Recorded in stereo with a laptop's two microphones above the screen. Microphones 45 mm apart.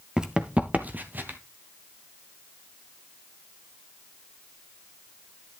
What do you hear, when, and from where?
0.2 s running footsteps: 15° right (ahead or behind), 0.9 m; by 1.4 s 45° right (ahead or behind), 1.4 m